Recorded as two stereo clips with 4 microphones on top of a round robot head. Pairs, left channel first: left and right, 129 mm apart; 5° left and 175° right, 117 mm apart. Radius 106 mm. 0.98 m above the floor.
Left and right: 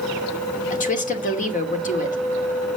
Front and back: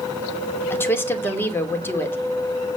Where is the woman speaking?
75° left, 2.5 m.